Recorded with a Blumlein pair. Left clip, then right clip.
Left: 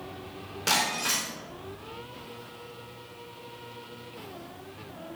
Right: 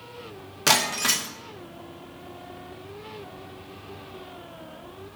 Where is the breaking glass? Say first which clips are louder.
Right 4 dB; 45° right, 2 m.